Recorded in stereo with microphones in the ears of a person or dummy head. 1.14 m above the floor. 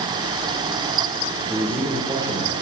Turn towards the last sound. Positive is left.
turn(degrees=-15)  # may be behind; listen again after turning